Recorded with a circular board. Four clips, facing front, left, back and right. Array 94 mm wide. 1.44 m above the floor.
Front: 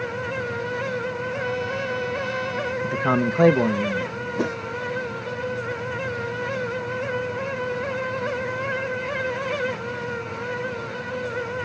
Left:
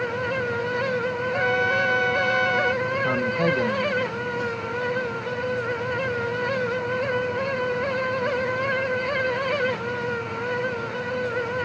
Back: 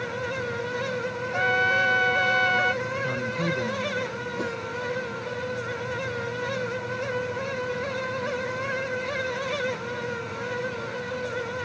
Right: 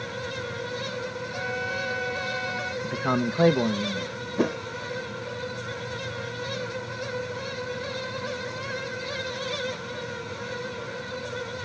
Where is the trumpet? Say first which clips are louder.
Left 9 dB, back 8 dB; 145° left.